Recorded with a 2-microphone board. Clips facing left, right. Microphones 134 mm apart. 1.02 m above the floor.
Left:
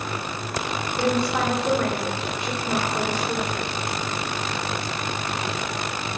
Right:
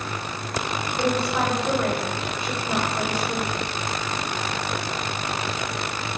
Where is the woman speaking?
80° left, 2.5 m.